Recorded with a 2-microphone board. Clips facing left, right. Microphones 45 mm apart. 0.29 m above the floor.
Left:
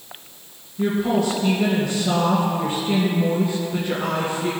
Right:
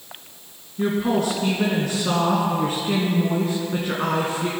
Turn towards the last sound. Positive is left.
turn(degrees=-60)  # may be behind; listen again after turning